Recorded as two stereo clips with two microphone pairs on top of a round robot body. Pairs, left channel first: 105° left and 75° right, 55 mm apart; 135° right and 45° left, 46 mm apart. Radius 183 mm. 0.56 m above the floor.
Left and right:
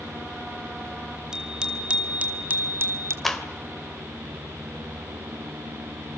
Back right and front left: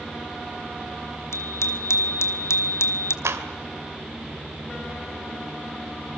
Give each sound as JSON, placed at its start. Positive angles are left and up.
{"t": 1.3, "sound": "a bicycle bell", "azimuth_deg": -155, "distance_m": 2.5}
{"t": 3.2, "sound": "a clap", "azimuth_deg": 20, "distance_m": 2.5}